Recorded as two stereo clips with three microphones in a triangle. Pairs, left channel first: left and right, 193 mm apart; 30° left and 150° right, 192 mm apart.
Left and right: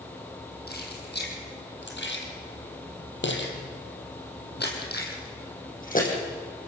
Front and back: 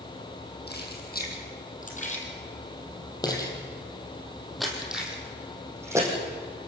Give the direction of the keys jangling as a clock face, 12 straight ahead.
10 o'clock.